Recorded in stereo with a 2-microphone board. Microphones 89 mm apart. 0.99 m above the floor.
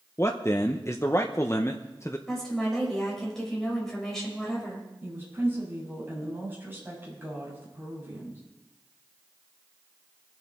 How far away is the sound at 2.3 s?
About 5 m.